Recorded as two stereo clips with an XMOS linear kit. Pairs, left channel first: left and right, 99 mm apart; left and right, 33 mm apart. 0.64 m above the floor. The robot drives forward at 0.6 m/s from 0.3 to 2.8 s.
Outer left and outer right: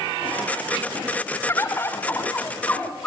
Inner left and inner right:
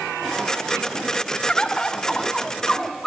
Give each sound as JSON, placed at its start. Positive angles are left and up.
{"t": 1.5, "sound": "a bird", "side_deg": 30, "distance_m": 2.0}